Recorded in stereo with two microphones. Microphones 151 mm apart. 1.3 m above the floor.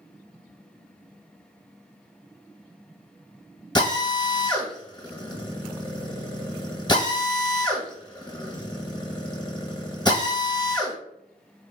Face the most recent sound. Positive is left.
turn(degrees=30)  # may be behind; listen again after turning